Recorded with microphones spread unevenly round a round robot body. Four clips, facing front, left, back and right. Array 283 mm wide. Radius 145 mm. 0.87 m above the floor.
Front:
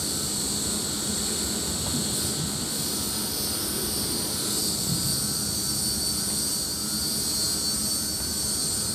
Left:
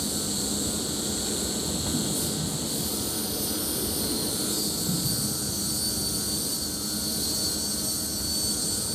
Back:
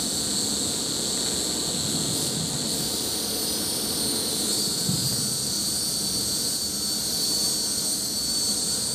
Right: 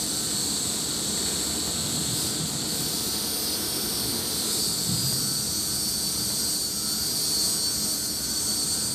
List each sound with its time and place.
0.0 s an insect: 165° left, 1.5 m